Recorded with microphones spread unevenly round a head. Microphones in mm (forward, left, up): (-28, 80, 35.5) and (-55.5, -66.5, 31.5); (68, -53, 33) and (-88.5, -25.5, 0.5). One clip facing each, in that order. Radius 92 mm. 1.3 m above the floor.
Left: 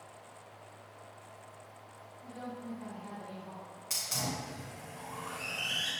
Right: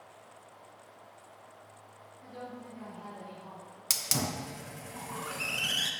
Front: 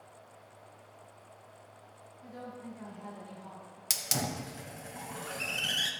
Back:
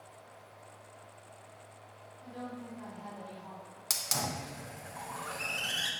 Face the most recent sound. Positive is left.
turn(degrees=-70)